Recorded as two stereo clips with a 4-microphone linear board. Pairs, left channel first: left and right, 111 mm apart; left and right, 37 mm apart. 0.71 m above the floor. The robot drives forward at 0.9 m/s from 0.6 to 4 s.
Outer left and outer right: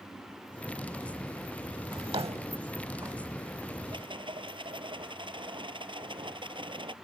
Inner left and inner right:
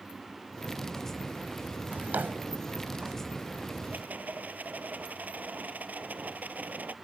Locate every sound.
1.9 s a drawer: 50° right (ahead or behind); by 3.2 s 40° right (ahead or behind)
3.9 s a rattle: 50° right (ahead or behind)